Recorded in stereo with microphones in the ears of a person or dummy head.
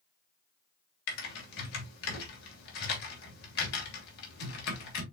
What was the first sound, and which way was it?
Typing on a keyboard, 60° left (ahead or behind).